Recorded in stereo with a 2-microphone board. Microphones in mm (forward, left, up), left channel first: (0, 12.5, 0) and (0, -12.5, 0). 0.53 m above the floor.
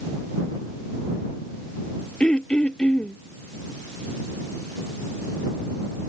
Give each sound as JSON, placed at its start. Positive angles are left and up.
{"t": 2.2, "sound": "throat clearing", "side_deg": 45}